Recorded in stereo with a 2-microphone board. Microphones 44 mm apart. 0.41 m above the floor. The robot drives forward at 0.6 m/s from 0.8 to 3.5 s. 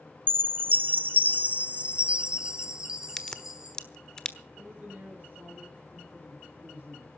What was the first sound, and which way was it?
A chime, 50° right (ahead or behind).